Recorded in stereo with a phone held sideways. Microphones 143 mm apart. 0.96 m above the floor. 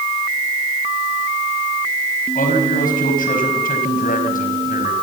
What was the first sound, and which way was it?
A man speaking, 80° left.